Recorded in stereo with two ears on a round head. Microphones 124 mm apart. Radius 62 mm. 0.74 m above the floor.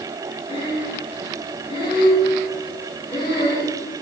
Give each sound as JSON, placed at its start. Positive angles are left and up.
{"t": 0.5, "sound": "breathing", "side_deg": 40, "distance_m": 8.0}